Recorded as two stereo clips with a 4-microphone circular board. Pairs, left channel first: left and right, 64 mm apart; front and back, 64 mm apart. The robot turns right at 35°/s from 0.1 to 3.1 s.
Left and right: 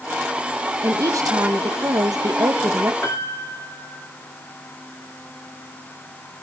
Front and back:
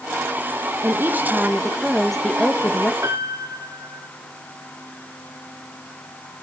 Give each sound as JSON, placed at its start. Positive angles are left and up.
{"t": 0.8, "sound": "a woman speaking", "azimuth_deg": -130, "distance_m": 1.7}
{"t": 3.0, "sound": "a piano", "azimuth_deg": 140, "distance_m": 2.5}